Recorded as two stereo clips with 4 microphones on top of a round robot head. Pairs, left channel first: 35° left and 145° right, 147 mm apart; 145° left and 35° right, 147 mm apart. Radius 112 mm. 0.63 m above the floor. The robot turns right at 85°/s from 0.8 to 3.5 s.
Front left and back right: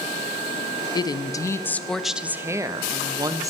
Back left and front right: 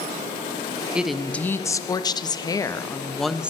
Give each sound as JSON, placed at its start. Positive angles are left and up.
{"t": 0.9, "sound": "a woman speaking", "azimuth_deg": 35, "distance_m": 0.7}